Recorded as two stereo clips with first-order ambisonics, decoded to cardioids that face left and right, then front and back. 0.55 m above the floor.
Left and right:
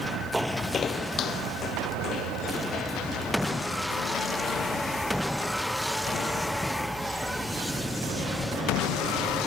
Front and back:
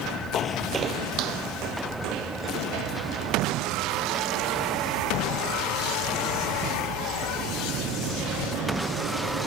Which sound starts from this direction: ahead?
Footsteps, at 0.3 s.